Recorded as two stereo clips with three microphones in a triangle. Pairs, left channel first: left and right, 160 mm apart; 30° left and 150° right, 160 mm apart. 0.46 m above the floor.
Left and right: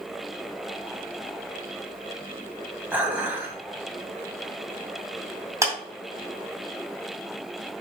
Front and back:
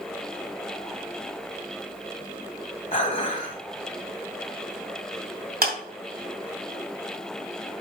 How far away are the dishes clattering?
About 1.6 m.